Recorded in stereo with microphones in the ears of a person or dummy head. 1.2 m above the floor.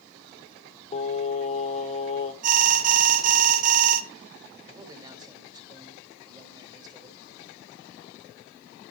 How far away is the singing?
About 1.2 m.